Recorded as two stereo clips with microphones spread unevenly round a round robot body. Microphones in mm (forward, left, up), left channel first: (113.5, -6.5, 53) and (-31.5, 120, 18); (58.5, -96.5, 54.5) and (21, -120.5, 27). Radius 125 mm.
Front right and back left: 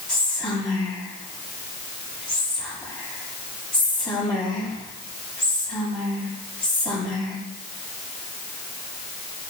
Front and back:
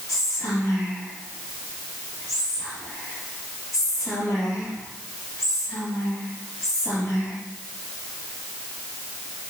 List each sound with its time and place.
0.1 s whispering: 25° left, 5 m